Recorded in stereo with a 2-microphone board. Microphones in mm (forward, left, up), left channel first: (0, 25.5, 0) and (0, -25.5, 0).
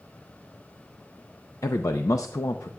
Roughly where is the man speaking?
Left.